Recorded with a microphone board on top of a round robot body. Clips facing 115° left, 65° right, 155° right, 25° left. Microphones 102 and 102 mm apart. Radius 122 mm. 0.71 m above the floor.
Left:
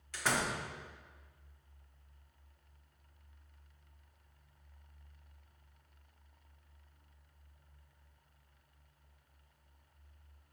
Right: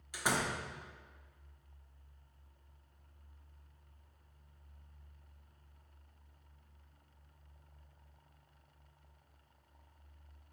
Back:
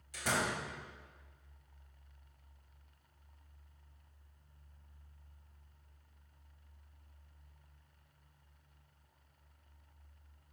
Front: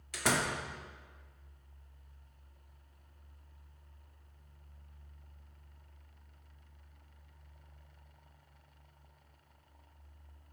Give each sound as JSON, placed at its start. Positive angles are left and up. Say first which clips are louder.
{"t": 0.1, "sound": "a door slam", "louder": "even, front 3 dB", "azimuth_deg": 10, "distance_m": 1.0}